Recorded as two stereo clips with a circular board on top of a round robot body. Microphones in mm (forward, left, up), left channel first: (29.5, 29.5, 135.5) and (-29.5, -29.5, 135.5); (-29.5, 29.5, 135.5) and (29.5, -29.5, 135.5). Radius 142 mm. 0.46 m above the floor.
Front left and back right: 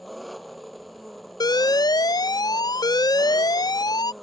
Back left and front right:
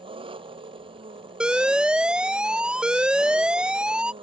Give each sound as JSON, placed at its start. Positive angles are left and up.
{"t": 0.0, "sound": "an engine running", "azimuth_deg": -45}
{"t": 1.4, "sound": "an alarm", "azimuth_deg": 30}